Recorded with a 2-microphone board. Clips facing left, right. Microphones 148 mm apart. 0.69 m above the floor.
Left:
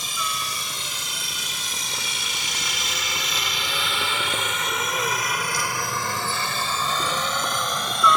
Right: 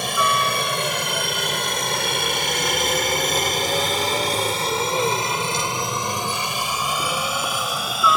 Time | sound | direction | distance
0.0 | a helicopter | 60° right (ahead or behind) | ?